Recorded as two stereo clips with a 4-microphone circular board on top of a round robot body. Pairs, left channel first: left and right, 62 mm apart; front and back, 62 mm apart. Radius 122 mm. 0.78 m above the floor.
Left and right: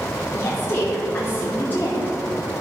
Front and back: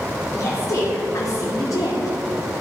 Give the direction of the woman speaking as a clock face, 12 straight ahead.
11 o'clock.